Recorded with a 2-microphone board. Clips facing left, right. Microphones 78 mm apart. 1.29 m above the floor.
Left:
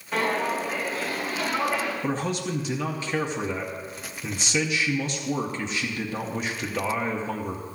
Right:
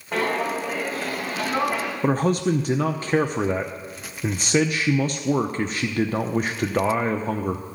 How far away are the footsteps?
About 4 m.